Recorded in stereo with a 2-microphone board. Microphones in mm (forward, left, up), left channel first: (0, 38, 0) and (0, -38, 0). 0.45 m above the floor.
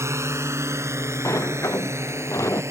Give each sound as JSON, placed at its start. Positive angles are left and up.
{"t": 0.0, "sound": "a drone", "side_deg": -40}
{"t": 1.2, "sound": "a sliding door", "side_deg": 40}